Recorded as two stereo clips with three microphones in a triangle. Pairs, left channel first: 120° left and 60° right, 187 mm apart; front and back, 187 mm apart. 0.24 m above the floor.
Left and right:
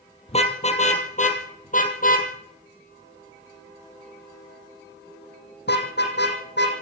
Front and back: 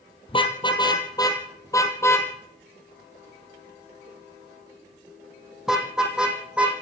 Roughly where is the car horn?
Ahead left.